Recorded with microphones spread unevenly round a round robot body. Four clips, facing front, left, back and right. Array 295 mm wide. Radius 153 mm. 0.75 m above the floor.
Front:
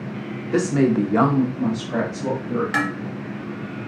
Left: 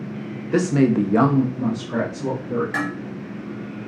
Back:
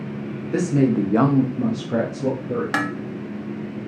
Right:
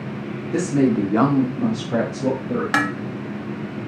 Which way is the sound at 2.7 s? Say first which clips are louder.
Right 4 dB, front 1 dB; 100° right.